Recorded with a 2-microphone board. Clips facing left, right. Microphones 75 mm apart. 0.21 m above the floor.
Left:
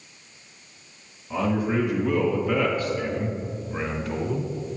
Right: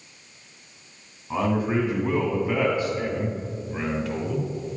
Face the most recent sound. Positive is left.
turn(degrees=15)  # may be behind; listen again after turning